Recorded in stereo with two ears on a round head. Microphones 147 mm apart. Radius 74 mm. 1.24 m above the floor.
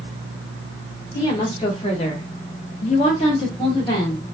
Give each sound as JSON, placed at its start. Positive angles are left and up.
{"t": 1.1, "sound": "a woman speaking", "side_deg": 25, "distance_m": 1.2}